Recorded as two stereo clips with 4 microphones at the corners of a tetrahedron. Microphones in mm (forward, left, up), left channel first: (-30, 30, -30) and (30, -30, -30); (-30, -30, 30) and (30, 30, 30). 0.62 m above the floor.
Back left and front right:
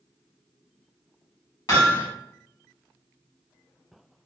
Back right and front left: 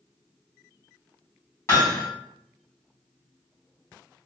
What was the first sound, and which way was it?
Hammering, 175° left.